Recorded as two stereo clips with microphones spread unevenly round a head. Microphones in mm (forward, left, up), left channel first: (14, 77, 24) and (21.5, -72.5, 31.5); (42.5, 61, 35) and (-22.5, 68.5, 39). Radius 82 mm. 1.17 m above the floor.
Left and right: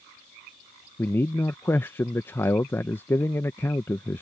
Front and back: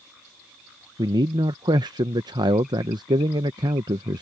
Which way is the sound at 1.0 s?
170° left.